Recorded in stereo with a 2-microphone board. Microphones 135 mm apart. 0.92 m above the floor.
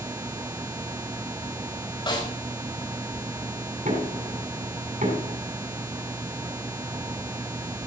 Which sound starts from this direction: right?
Knocking, at 3.9 s.